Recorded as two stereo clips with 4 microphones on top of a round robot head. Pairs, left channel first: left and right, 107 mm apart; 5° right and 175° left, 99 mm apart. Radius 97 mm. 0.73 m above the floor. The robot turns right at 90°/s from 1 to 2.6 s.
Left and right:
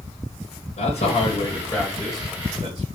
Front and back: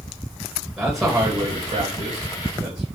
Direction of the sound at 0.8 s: 85° left.